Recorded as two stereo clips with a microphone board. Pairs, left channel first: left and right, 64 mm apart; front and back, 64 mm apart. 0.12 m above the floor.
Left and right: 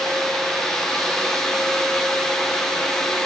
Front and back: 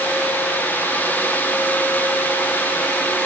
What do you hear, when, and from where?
Only background noise.